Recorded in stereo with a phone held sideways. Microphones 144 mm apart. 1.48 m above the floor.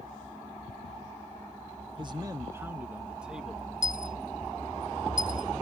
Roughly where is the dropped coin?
Left.